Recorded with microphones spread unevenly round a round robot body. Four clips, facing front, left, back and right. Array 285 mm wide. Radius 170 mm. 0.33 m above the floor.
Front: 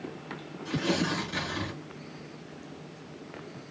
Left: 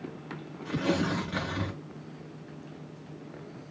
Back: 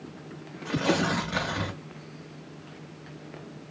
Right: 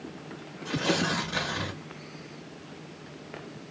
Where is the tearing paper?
145° left, 1.4 m.